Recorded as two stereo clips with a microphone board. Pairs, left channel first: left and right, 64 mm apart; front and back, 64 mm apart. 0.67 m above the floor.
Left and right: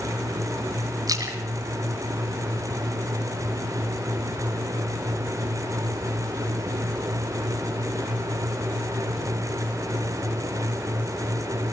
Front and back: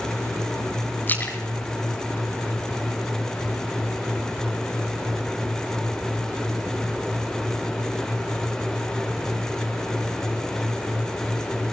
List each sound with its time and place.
1.1 s a splash: 60° right, 4.5 m